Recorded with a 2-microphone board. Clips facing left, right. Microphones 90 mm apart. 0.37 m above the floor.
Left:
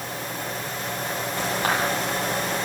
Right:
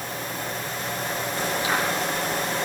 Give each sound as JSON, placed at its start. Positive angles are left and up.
{"t": 1.6, "sound": "a clap", "side_deg": 50, "distance_m": 9.5}